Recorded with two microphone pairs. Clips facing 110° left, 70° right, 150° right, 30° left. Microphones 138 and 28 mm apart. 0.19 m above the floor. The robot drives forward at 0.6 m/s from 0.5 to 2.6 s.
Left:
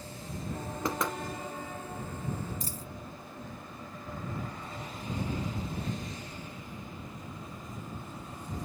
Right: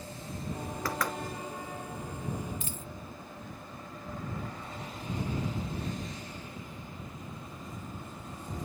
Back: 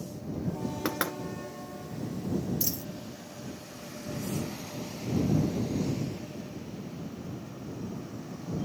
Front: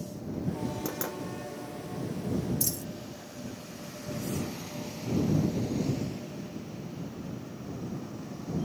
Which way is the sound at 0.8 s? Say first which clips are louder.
Left 2 dB, back 4 dB; straight behind.